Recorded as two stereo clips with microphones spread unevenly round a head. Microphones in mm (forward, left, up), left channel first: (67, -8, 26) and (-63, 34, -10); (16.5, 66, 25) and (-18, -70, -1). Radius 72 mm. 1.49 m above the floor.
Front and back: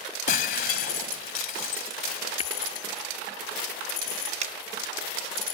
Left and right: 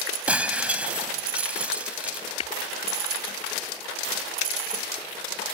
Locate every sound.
0.3 s breaking glass: 20° right
2.4 s tapping: 25° left
4.4 s a finger snap: 120° left